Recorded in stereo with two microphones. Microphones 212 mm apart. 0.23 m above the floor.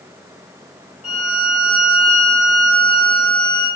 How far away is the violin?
About 1.2 m.